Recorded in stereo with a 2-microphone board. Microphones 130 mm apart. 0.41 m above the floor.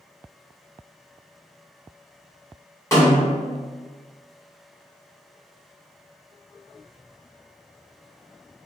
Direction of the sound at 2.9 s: 25° left (ahead or behind).